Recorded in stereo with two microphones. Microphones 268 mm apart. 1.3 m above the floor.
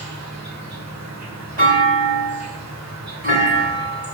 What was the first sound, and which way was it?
An insect, 80° right.